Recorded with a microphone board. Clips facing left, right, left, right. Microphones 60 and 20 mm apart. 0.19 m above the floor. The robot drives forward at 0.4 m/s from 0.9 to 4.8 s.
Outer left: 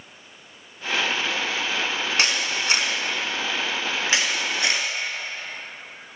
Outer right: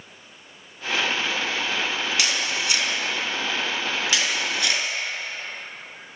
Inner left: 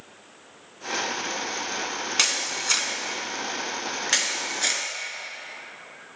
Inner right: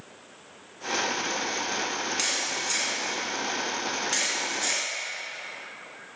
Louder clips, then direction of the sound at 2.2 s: Outer left 1 dB, inner left 7 dB; 45° left (ahead or behind).